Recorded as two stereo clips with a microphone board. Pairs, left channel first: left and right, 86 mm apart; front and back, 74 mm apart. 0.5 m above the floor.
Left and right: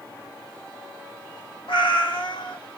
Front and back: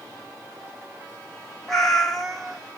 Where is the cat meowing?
85° left, 1.1 m.